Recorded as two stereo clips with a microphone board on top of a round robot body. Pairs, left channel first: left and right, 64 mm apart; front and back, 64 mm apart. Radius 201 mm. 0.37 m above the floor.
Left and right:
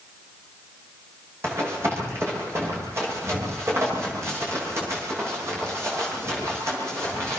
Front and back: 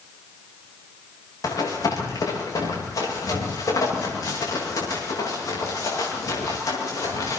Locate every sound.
1.4 s running footsteps: 40° right, 8.5 m